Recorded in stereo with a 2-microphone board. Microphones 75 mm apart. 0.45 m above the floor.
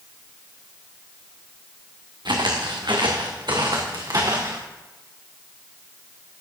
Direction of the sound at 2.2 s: 75° right (ahead or behind).